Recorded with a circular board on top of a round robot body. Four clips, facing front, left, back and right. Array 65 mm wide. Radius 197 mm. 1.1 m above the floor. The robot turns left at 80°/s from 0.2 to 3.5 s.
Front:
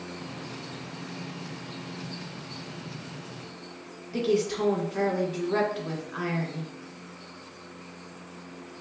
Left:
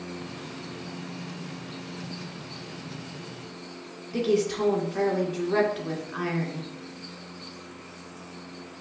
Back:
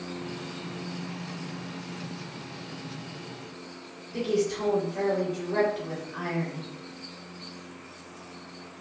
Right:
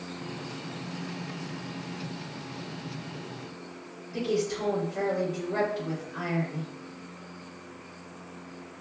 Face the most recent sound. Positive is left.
turn(degrees=65)